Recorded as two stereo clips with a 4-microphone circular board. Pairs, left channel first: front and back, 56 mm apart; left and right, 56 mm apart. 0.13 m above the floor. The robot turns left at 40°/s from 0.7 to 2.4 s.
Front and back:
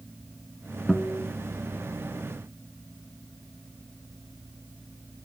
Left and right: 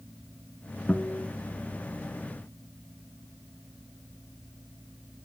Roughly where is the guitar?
Ahead left.